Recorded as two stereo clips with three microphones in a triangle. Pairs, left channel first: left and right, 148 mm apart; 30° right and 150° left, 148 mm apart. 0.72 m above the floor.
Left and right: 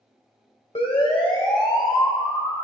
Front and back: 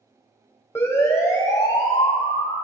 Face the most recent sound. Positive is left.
turn(degrees=15)